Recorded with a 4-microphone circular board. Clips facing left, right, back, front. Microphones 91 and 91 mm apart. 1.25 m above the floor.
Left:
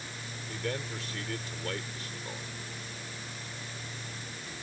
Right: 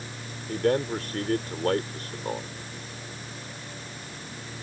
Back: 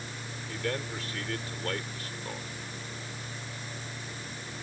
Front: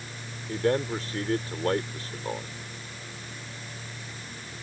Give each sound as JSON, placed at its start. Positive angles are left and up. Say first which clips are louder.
{"t": 0.5, "sound": "a man speaking", "louder": "right 12 dB, front 9 dB", "azimuth_deg": -55}